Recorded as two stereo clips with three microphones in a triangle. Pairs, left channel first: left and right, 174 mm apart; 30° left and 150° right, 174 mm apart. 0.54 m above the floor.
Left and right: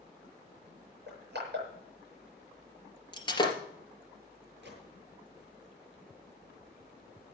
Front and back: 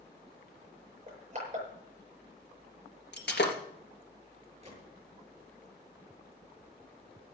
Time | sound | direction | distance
1.1 | crushing | 105° right | 6.5 m
3.1 | breaking glass | 25° left | 3 m
4.6 | a gunshot | 95° right | 7.5 m